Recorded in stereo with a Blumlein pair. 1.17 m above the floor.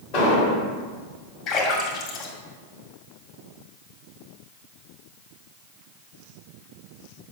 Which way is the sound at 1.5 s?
35° left.